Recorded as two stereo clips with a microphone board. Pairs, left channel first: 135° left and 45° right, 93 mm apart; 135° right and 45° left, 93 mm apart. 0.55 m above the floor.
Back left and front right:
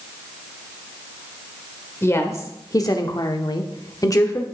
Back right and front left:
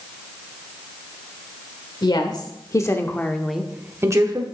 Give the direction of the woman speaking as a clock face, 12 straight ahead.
6 o'clock.